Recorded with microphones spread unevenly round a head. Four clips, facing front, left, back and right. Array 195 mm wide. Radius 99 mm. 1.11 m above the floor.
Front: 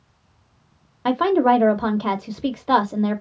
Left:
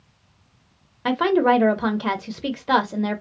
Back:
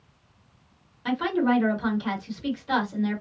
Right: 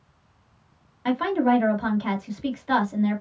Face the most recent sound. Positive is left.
turn(degrees=35)